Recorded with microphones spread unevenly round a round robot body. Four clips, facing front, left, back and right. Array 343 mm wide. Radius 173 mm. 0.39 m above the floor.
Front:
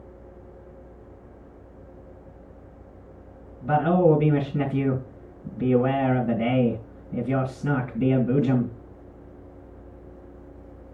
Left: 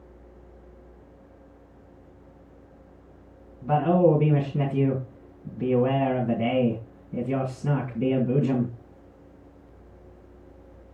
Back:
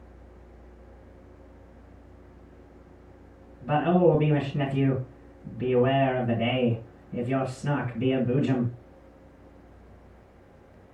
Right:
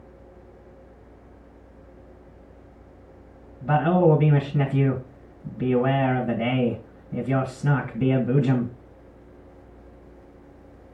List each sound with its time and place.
3.6 s a man speaking: 70° right, 2.5 m